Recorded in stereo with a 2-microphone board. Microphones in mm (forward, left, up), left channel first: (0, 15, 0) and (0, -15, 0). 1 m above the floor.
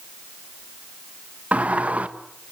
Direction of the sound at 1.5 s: 50° right (ahead or behind).